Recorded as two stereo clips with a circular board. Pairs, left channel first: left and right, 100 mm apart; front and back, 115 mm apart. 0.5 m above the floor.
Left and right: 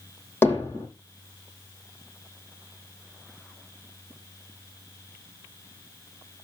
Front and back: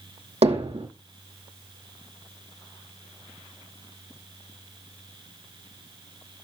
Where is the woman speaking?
I don't hear a woman speaking.